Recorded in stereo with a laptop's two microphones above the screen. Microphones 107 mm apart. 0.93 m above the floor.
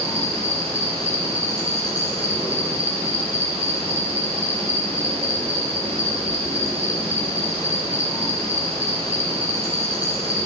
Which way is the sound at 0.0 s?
75° right (ahead or behind).